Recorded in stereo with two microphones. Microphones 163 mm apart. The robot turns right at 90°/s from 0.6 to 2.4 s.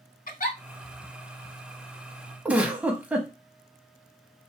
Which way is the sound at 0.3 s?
55° left (ahead or behind).